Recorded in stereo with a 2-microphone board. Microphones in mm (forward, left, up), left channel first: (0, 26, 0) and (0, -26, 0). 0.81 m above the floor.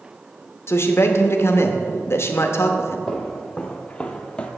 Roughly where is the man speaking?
Left.